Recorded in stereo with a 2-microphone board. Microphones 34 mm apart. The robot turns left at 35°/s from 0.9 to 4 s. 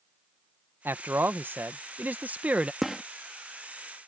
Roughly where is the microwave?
I don't hear a microwave.